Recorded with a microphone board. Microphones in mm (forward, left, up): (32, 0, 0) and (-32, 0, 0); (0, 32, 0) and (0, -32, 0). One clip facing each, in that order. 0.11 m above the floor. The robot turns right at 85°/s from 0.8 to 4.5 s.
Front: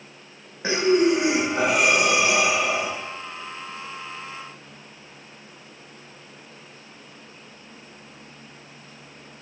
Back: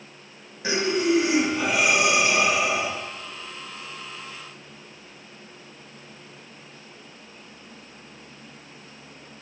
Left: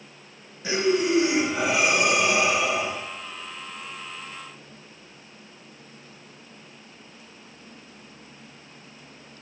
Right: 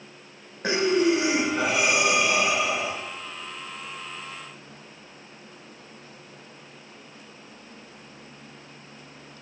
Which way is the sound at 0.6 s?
55° right.